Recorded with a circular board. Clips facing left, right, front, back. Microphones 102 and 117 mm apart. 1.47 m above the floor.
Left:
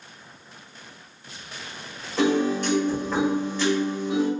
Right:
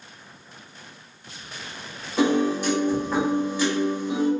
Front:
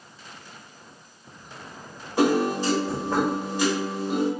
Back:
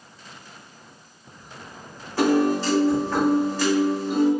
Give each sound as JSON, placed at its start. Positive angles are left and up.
{"t": 2.2, "sound": "a piano", "azimuth_deg": -30, "distance_m": 1.1}